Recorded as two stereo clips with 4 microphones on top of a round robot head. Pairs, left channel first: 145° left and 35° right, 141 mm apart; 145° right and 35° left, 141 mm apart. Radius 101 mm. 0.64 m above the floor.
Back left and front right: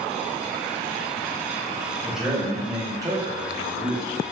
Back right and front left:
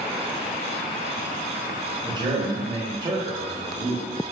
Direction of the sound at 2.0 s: 55° left.